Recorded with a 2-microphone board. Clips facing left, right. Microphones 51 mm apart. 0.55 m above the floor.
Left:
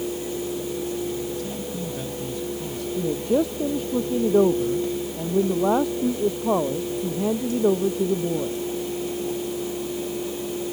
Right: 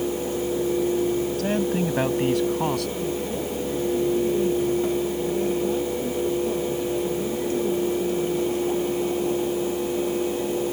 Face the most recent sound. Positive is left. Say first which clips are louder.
# left 5 dB
turn(degrees=75)  # may be behind; listen again after turning